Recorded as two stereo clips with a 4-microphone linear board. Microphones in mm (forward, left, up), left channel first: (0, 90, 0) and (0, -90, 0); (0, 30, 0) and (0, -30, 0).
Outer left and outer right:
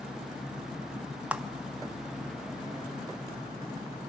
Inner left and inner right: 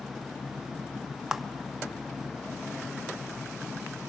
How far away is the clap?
About 0.6 m.